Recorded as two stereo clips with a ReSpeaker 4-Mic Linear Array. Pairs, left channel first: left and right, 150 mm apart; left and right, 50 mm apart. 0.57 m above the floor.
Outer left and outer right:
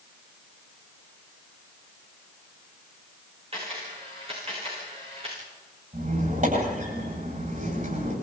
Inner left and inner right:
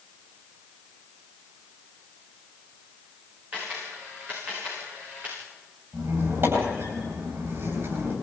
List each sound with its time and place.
3.5 s a camera shutter: 40° right (ahead or behind), 9 m
5.9 s a squeak: 55° right (ahead or behind), 9.5 m